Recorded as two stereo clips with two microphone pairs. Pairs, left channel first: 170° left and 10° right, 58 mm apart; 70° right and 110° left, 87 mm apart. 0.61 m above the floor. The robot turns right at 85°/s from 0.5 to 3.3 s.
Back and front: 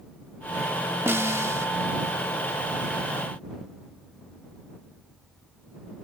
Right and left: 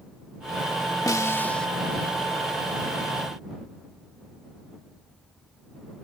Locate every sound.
1.1 s a snare drum: 40° right; by 1.7 s 10° left